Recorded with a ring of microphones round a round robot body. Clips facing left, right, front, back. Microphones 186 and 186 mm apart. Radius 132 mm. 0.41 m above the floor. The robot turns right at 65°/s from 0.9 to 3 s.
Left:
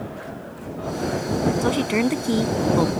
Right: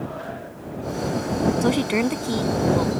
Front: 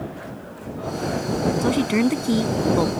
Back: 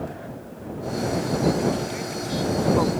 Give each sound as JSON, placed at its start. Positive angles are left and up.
{"t": 1.6, "sound": "a woman speaking", "azimuth_deg": -25}